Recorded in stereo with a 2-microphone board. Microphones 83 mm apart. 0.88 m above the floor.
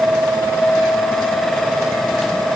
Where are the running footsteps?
I don't hear running footsteps.